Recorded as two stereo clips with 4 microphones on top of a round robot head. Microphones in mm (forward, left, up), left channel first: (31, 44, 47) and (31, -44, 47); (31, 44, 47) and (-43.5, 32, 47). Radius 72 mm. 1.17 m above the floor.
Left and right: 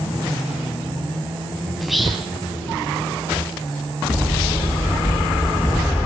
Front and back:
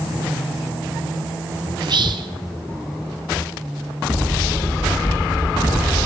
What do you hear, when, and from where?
1.8 s whispering: straight behind, 1.4 m